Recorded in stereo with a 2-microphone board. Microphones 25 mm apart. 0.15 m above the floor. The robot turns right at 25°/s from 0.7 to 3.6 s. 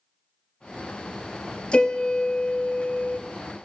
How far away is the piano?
About 1.2 m.